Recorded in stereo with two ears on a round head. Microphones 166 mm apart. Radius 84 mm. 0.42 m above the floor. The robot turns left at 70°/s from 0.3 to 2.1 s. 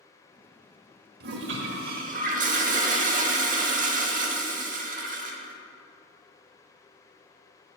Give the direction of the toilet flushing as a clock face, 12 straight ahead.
2 o'clock.